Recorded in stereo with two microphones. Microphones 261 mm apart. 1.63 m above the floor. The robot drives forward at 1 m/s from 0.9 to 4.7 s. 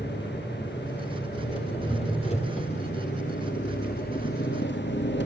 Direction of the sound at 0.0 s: 20° left (ahead or behind).